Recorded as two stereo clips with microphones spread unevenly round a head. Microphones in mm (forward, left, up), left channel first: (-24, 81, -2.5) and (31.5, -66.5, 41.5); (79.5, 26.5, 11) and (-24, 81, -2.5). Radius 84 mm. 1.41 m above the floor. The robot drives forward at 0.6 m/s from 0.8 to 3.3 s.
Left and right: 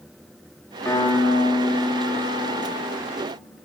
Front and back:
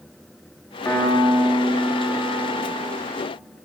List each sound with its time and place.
0.8 s a piano: 25° left, 1.6 m; by 3.0 s 115° left, 1.2 m